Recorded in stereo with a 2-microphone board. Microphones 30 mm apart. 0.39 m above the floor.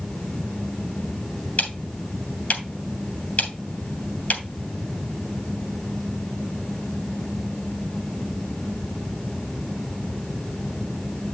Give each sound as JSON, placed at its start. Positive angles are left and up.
{"t": 1.6, "sound": "ticking", "side_deg": 55, "distance_m": 3.0}